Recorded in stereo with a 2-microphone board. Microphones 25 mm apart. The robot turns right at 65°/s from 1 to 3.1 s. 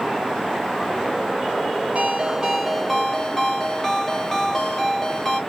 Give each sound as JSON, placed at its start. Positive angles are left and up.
{"t": 1.9, "sound": "a ringtone", "azimuth_deg": -60, "distance_m": 1.5}